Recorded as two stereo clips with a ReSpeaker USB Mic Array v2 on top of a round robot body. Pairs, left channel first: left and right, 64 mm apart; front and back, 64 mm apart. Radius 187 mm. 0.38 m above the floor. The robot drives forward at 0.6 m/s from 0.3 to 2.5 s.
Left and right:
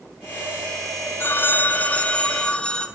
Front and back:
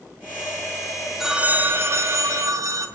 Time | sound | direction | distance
1.2 | a phone ringing | 100° left | 0.6 m